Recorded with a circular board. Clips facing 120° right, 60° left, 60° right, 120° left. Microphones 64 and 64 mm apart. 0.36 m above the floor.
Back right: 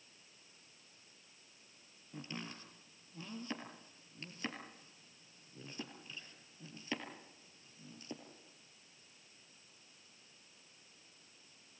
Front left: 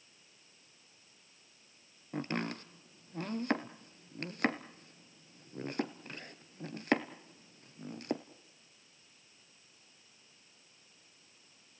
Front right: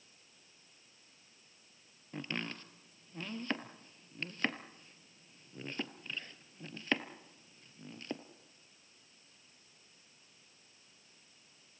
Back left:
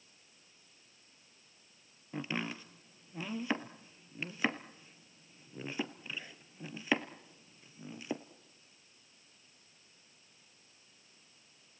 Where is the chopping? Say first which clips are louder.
Front left 10 dB, back left 3 dB; 40° left, 1.2 m.